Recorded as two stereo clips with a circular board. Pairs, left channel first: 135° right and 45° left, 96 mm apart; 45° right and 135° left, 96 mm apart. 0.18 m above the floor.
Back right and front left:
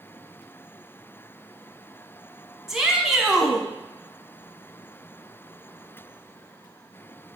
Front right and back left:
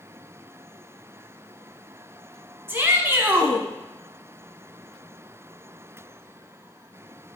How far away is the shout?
About 1.3 m.